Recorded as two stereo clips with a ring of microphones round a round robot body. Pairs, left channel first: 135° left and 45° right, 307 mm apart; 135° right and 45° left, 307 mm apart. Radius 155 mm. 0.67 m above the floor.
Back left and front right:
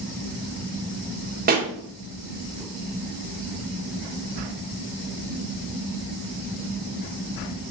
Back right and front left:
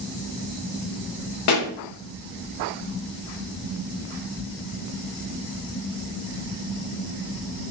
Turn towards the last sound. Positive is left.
turn(degrees=-105)